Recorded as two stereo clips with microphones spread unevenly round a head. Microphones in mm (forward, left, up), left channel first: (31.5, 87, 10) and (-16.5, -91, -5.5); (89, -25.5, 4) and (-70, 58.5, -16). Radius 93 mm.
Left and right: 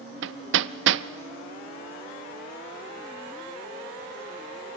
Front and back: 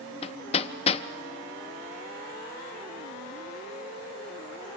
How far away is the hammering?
About 0.7 m.